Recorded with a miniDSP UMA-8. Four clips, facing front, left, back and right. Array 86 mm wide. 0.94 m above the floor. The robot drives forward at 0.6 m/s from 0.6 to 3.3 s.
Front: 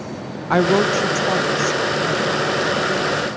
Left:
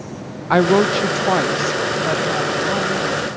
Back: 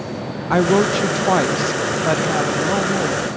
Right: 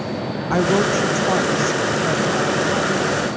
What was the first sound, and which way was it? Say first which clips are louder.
A woman speaking: left 4 dB, even; 85° left.